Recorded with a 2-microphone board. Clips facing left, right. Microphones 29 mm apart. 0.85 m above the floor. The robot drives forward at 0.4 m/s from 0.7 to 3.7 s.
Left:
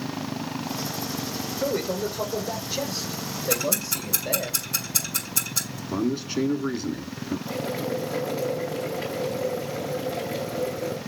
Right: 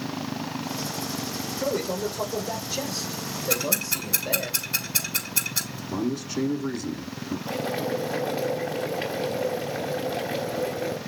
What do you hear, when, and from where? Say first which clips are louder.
1.6 s a man speaking: left 1 dB; 5° left (ahead or behind), 3.5 m
3.5 s ticking: even; 30° right (ahead or behind), 5.5 m; by 5.8 s 25° right (ahead or behind), 5.5 m
5.9 s a man speaking: left 2 dB; 20° left (ahead or behind), 2.0 m
7.5 s boiling: right 2 dB; 55° right (ahead or behind), 3.5 m